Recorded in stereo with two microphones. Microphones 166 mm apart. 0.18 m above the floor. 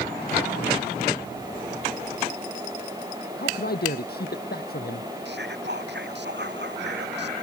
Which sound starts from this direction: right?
Whispering, at 5.2 s.